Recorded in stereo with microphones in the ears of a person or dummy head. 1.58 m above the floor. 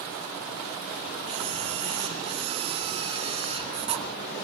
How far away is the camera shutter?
About 3 m.